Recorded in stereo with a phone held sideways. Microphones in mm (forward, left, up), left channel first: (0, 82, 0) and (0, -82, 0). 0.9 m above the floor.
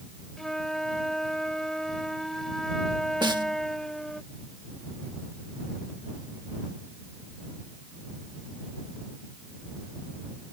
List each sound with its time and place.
0.4 s a flute: 5° left (ahead or behind)
3.2 s a snare drum: 30° right (ahead or behind)